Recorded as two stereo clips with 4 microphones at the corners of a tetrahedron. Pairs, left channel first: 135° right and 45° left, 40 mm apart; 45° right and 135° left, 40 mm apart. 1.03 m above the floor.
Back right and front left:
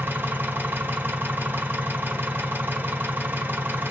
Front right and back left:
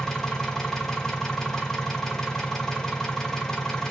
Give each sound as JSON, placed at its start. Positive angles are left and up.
{"t": 0.0, "sound": "an engine running", "azimuth_deg": 30, "distance_m": 1.2}